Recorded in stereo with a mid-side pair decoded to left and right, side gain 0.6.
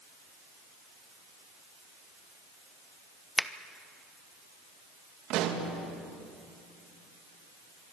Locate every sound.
3.4 s a finger snap: straight ahead, 0.9 m
5.3 s a pop: 65° right, 3 m